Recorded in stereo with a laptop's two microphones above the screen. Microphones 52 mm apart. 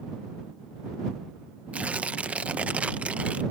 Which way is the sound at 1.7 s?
25° right (ahead or behind).